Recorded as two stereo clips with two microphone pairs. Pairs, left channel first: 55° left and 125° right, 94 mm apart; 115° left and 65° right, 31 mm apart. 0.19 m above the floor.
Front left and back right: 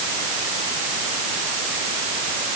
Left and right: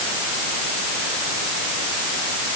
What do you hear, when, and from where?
Only background noise.